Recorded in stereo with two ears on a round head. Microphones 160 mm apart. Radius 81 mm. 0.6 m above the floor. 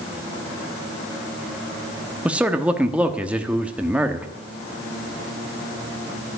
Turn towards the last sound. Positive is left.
turn(degrees=-5)  # may be behind; listen again after turning